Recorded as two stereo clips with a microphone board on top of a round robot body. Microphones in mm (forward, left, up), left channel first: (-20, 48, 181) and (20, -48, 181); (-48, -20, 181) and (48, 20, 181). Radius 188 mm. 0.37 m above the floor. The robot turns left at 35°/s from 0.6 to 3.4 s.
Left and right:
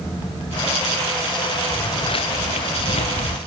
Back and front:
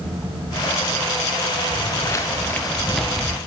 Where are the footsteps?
155° left, 3 m; by 3.4 s 105° left, 1.8 m.